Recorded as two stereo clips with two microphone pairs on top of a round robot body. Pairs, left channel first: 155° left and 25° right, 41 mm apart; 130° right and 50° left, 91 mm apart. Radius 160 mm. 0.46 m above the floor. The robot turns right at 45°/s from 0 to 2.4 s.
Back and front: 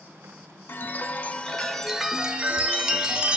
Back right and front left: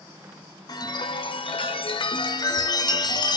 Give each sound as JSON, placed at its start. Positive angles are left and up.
{"t": 0.7, "sound": "a chime", "azimuth_deg": -170, "distance_m": 0.5}